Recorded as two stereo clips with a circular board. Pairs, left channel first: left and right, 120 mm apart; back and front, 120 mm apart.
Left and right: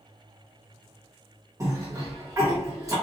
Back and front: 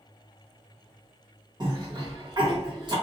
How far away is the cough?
About 1.3 m.